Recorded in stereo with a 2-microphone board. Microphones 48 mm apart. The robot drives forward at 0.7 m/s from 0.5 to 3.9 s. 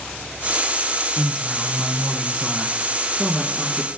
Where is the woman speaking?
20° left (ahead or behind), 1.1 m; by 3.9 s 10° left (ahead or behind), 2.5 m.